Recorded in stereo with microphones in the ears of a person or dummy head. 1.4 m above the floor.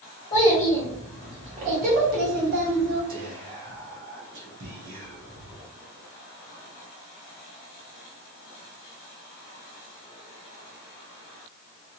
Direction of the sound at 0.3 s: 25° left (ahead or behind).